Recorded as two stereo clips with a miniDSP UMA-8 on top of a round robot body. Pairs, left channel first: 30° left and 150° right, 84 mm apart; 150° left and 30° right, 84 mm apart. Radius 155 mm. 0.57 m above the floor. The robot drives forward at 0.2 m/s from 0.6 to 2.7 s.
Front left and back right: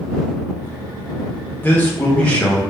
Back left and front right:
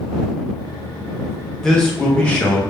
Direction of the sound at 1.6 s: 75° left.